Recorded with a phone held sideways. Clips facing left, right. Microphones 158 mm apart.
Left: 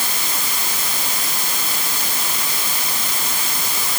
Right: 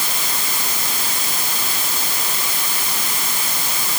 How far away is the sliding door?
I don't hear a sliding door.